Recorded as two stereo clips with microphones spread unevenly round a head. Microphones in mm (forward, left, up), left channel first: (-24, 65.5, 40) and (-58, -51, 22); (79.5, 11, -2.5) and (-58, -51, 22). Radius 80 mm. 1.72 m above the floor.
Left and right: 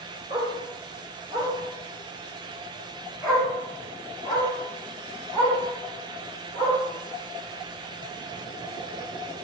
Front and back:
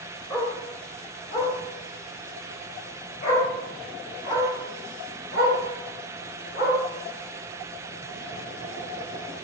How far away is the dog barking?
About 2.5 m.